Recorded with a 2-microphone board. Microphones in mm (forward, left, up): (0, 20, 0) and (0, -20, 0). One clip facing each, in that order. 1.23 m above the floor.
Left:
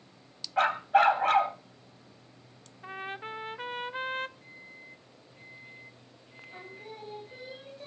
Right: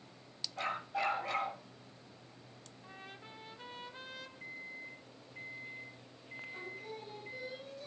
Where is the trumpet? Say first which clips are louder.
Left 14 dB; 50° left (ahead or behind), 0.6 m.